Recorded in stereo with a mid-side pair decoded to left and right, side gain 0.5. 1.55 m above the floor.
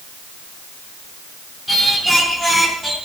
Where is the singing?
10° right, 4.5 m.